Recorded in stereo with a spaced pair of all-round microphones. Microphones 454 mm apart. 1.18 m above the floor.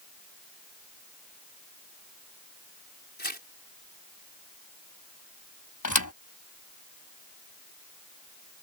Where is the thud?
40° left (ahead or behind).